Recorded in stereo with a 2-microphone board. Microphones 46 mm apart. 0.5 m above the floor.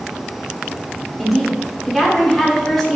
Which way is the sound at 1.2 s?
Centre (ahead or behind).